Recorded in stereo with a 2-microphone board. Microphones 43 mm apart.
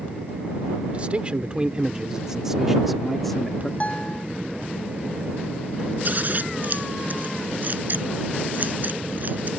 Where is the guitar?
35° left (ahead or behind).